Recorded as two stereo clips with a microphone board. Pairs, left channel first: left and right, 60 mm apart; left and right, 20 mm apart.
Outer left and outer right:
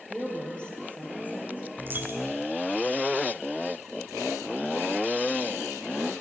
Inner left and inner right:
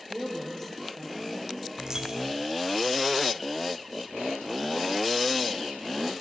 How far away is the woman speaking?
About 3 m.